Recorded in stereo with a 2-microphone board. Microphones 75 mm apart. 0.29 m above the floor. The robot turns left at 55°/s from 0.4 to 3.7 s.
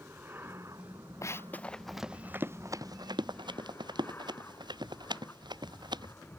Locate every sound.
0.0 s an aircraft: 30° right; by 6.4 s 145° left
1.2 s running footsteps: 40° left (ahead or behind); by 6.1 s 75° right (ahead or behind)